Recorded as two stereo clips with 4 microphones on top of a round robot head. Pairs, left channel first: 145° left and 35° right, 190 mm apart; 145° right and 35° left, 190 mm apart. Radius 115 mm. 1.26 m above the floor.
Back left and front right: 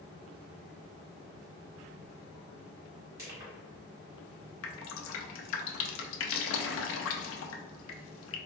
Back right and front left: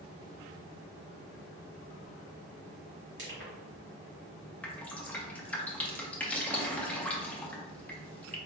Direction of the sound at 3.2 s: 35° left.